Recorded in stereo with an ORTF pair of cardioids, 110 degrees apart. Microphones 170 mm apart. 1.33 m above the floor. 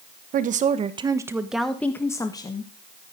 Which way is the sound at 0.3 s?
55° right.